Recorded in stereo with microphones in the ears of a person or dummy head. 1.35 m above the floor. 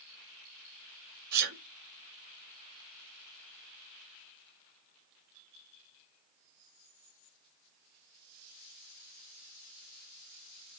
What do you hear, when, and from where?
1.3 s a sneeze: 50° right (ahead or behind), 4.5 m